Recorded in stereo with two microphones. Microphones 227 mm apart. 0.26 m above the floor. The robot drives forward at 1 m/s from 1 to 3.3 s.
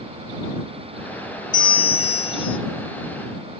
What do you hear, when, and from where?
1.5 s a bell: 55° left (ahead or behind), 1.1 m; by 2.6 s 65° left (ahead or behind), 1.1 m